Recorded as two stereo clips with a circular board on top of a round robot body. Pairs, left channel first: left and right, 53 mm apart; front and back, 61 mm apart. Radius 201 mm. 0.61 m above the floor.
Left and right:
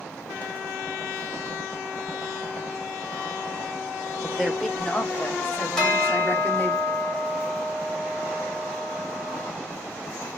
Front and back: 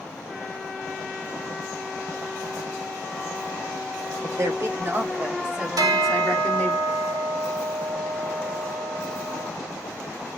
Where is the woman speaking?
175° left, 1.4 m; by 6.8 s 60° left, 1.3 m.